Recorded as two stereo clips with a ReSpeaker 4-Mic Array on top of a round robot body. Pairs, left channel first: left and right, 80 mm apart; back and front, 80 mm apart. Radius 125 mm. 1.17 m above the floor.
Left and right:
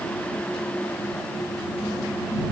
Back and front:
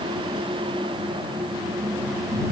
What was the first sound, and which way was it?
Only background noise.